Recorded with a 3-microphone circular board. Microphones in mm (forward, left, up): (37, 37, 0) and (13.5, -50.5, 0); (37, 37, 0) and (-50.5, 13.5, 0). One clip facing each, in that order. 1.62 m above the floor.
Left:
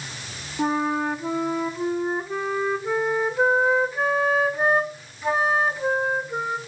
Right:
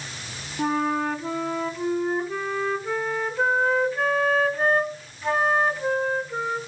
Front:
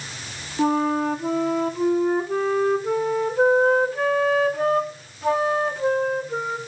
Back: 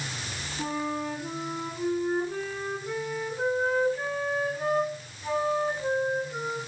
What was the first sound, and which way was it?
A flute, 5° right.